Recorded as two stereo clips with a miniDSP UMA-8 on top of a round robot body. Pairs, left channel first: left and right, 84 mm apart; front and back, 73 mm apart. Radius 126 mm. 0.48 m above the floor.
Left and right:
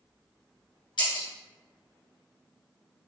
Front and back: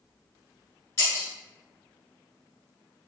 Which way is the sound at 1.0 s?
60° left.